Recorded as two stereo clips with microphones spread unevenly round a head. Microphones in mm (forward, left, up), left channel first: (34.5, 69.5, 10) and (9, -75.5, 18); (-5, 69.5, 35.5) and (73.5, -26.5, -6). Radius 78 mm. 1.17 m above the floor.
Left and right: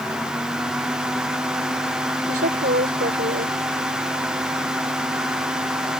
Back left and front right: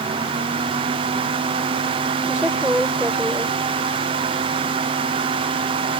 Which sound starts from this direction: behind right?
A woman speaking, at 2.3 s.